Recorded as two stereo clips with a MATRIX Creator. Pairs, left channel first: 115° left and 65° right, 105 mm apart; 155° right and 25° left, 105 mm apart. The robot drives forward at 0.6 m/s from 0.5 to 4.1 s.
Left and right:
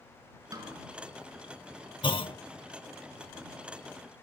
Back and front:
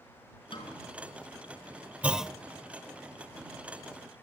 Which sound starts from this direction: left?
A clunk, at 2.0 s.